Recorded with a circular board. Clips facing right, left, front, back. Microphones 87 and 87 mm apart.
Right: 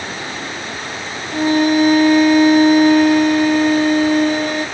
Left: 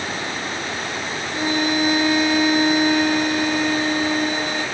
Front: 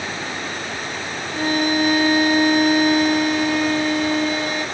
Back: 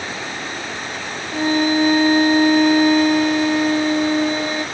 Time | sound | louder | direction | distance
1.3 | a violin | right 8 dB, back 3 dB | 125° right | 1.2 m